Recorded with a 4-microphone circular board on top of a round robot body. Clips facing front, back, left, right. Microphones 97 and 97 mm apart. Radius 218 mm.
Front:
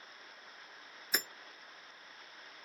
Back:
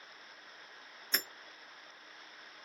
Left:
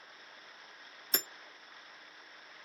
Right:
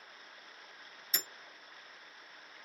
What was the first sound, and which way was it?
Hammering, 80° left.